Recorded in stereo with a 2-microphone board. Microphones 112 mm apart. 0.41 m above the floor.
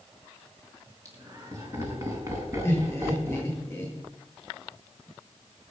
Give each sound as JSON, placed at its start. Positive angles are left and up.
{"t": 1.1, "sound": "laughter", "side_deg": -30, "distance_m": 5.0}
{"t": 2.6, "sound": "laughter", "side_deg": 20, "distance_m": 9.5}